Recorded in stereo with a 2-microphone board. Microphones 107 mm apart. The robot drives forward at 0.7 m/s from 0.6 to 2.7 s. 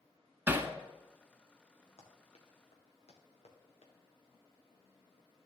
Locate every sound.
0.5 s hammering: 20° right (ahead or behind), 0.8 m; by 0.7 s 15° right (ahead or behind), 0.8 m
2.0 s running footsteps: 70° left (ahead or behind), 2.5 m; by 3.9 s 75° left (ahead or behind), 3 m